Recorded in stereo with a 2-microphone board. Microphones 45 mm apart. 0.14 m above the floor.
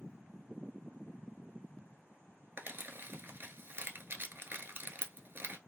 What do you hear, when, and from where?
2.6 s crumpling: 55° right (ahead or behind), 0.5 m